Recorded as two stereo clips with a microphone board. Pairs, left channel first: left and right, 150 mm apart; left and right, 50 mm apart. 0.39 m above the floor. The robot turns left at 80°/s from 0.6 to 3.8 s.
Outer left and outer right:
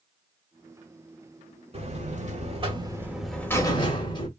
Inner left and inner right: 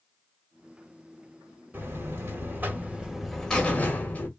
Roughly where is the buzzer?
Ahead right.